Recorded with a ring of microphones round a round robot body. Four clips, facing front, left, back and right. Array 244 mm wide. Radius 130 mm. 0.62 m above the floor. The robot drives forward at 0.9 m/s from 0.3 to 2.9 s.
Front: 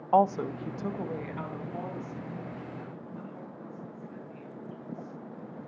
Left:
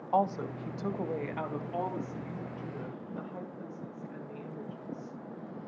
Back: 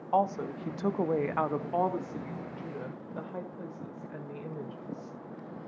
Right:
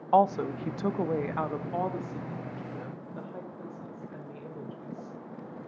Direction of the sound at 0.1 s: 50° right.